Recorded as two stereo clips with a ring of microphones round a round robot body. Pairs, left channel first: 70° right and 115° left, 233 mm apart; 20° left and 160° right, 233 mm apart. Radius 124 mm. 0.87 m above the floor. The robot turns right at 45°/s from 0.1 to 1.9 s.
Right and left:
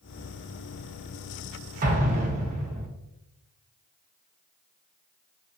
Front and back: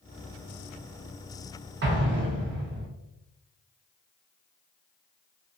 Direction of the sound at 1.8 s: 165° left.